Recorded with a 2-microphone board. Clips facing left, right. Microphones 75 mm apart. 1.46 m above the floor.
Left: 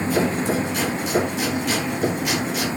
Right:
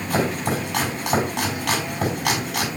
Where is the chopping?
75° right (ahead or behind), 4.5 m.